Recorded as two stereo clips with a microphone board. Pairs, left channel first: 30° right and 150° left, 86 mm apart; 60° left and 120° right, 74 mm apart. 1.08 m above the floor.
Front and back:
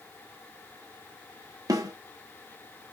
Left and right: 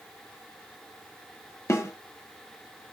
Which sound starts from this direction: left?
A snare drum, at 1.7 s.